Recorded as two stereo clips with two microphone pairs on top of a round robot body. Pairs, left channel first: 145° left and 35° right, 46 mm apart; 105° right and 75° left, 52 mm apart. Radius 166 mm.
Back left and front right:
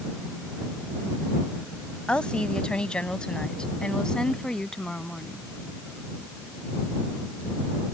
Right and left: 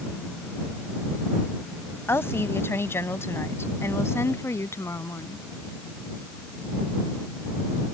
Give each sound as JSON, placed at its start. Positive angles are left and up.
{"t": 2.1, "sound": "a woman speaking", "azimuth_deg": -150}